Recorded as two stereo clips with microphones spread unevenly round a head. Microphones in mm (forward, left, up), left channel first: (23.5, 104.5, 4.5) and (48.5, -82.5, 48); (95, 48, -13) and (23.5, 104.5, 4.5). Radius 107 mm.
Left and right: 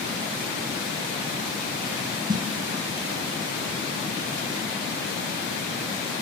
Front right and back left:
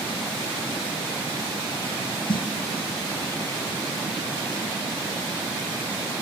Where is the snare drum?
35° right, 1.1 m.